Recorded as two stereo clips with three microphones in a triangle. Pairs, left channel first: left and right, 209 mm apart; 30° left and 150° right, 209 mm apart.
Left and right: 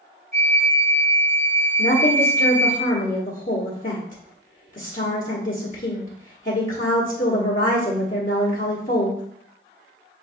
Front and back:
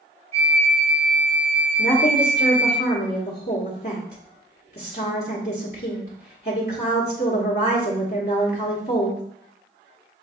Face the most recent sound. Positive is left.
turn(degrees=50)